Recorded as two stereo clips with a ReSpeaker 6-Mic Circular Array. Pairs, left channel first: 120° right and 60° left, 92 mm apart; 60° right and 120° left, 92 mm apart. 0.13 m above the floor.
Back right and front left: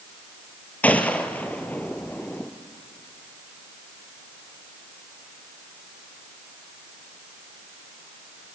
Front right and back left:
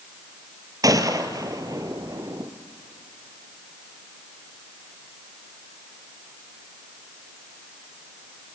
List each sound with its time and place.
0.8 s a gunshot: 165° left, 1.4 m